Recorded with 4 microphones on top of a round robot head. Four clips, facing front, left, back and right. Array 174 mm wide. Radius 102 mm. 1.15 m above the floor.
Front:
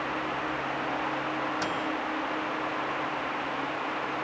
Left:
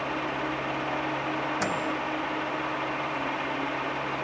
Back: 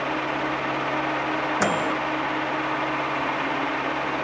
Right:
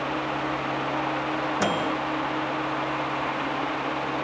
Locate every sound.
1.6 s a microwave: 150° right